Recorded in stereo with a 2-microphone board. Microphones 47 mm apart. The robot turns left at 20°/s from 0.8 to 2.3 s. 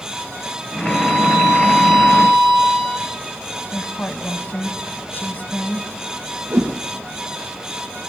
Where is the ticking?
I don't hear ticking.